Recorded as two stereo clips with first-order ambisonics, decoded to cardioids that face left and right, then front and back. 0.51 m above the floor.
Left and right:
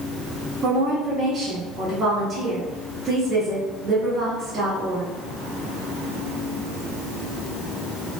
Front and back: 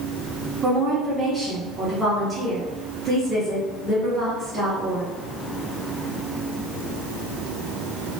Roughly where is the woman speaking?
Right.